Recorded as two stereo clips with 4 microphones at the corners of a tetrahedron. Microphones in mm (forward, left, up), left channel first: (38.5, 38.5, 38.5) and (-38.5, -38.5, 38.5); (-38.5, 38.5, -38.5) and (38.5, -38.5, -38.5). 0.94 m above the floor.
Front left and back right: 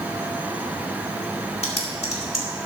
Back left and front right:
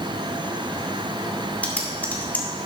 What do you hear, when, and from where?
1.6 s typing on a keyboard: 60° left, 2 m